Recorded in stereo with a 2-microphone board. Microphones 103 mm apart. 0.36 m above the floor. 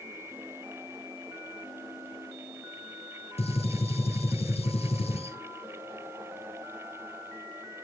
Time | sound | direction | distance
3.4 | a gunshot | 85° left | 1.7 m